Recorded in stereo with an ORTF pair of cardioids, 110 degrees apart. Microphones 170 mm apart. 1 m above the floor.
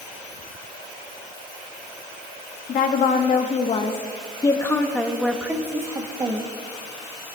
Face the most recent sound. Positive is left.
turn(degrees=-30)